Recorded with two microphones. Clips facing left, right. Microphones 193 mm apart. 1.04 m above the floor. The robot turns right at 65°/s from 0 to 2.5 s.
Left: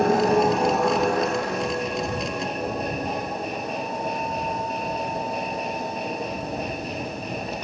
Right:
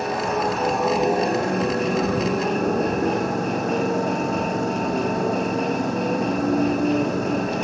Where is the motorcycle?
130° left; by 7.6 s 70° right.